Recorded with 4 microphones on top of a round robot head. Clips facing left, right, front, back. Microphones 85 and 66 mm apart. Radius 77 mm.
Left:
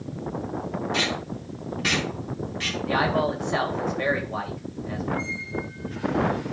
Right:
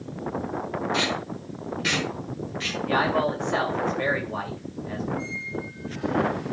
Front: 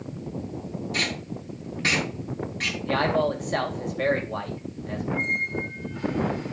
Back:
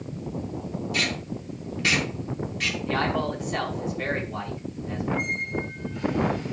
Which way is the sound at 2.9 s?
5° left.